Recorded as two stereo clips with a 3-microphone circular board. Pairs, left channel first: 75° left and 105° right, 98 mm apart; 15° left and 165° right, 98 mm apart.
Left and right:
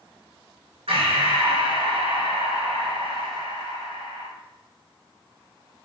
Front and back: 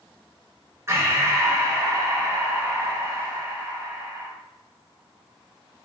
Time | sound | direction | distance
0.9 | breathing | 105° right | 1.6 m